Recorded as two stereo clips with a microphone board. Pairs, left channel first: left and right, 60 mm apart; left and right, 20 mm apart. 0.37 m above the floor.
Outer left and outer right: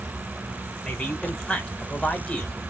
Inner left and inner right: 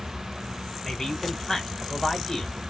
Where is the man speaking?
15° left (ahead or behind), 1.1 m.